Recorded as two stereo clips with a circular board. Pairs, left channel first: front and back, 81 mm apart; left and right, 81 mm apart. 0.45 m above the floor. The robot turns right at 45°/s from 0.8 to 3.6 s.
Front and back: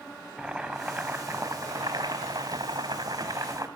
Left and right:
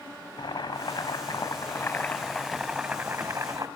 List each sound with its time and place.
0.4 s boiling: 100° left, 3.5 m; by 3.7 s 130° right, 3.5 m